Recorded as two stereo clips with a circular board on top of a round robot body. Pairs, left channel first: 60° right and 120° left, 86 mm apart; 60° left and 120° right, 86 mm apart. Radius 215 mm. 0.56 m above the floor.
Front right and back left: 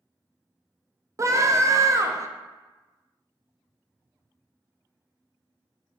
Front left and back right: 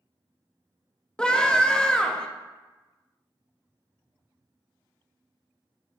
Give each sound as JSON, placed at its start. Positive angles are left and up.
{"t": 1.2, "sound": "a scream", "azimuth_deg": 135, "distance_m": 0.7}